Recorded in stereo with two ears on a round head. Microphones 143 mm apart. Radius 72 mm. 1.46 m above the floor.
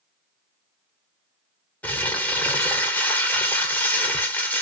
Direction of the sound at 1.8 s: 10° left (ahead or behind).